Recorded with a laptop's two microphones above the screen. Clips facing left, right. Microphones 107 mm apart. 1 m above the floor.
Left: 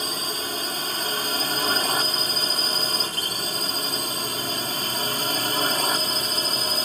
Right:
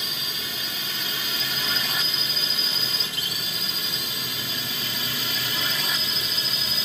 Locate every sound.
0.0 s a drone: 40° left (ahead or behind); by 6.9 s 45° left (ahead or behind)